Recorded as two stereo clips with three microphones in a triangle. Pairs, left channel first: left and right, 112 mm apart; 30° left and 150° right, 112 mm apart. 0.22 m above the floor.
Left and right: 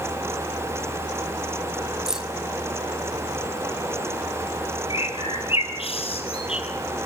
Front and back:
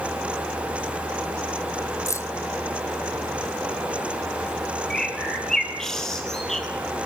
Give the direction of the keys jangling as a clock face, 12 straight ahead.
12 o'clock.